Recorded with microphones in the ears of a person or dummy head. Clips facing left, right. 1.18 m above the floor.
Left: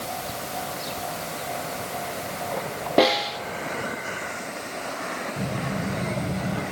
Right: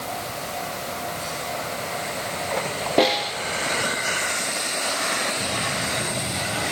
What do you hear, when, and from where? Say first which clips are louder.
3.0 s a snare drum: left 1 dB; centre (ahead or behind), 0.9 m
5.4 s a child speaking: even; 40° left (ahead or behind), 4.5 m